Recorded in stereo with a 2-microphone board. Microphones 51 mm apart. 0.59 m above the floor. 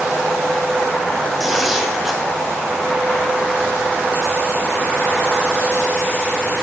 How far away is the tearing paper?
About 2.5 m.